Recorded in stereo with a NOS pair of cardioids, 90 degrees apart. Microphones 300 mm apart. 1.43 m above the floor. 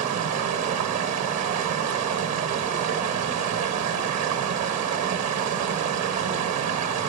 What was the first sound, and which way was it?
Running water, 55° right.